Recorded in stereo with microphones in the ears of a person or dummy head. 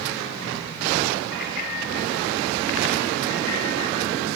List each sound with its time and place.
1.3 s a bicycle bell: 55° left (ahead or behind), 3 m; by 4.1 s 80° left, 6 m